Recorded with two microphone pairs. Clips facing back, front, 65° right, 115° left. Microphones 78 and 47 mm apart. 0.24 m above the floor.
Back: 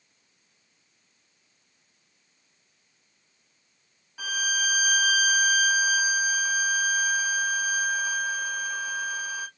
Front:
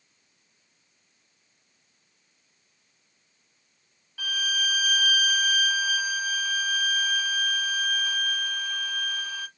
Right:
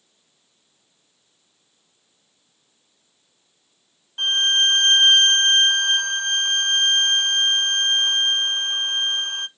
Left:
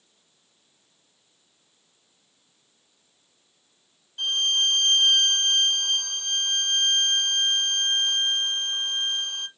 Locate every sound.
4.2 s a violin: 105° right, 0.5 m